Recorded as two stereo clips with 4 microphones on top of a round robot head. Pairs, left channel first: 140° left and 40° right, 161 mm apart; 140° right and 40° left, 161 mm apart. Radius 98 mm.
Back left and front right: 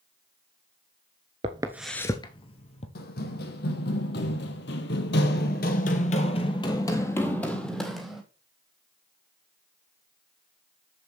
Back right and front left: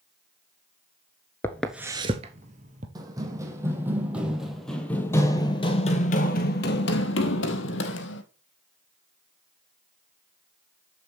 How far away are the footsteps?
About 0.9 m.